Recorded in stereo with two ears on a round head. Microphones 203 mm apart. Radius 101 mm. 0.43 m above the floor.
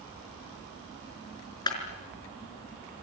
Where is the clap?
20° left (ahead or behind), 5 m.